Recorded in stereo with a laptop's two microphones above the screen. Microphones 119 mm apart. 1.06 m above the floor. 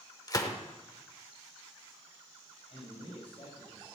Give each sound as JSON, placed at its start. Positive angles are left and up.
{"t": 0.3, "sound": "a gunshot", "side_deg": 30, "distance_m": 1.1}
{"t": 2.7, "sound": "a man speaking", "side_deg": 60, "distance_m": 5.0}